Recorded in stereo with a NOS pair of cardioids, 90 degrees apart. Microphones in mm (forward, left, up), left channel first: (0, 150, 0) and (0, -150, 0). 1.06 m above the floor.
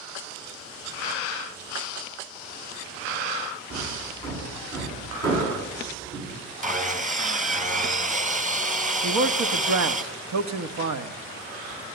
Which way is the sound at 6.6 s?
25° right.